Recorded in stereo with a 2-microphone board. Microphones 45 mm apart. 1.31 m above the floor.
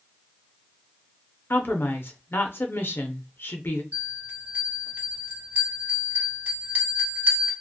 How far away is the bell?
About 1.0 m.